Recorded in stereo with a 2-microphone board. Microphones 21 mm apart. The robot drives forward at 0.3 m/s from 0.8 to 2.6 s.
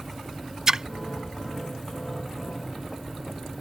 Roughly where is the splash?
Right.